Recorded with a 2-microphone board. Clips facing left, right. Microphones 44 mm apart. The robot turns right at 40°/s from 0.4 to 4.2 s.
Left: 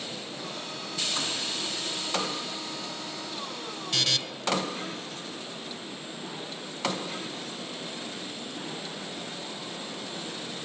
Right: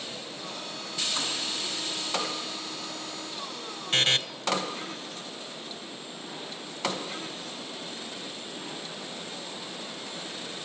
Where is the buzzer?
40° right (ahead or behind), 1.1 m; by 4.2 s 35° right (ahead or behind), 1.1 m.